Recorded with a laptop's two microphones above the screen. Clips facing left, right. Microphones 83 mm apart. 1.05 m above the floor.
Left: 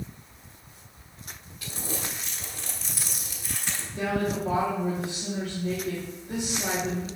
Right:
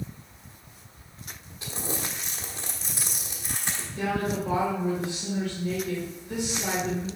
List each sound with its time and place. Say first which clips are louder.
1.6 s crumpling: right 2 dB; 25° right (ahead or behind), 1.2 m
3.9 s a woman speaking: left 1 dB; 40° left (ahead or behind), 2.5 m